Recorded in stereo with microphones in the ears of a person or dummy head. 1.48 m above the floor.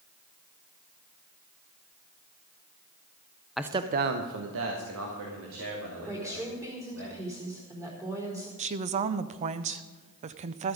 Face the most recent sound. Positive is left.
turn(degrees=-35)  # may be behind; listen again after turning